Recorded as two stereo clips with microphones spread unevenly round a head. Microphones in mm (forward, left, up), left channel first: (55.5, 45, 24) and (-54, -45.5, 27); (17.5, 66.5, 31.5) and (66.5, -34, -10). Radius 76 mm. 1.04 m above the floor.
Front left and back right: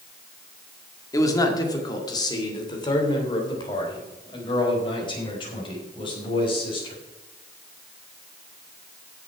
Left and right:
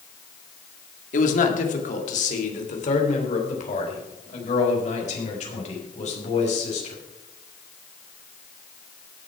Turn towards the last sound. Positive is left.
turn(degrees=95)